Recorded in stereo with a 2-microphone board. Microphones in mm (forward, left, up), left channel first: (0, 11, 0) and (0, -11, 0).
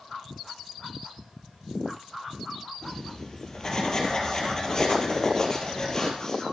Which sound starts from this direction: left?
Writing, at 2.8 s.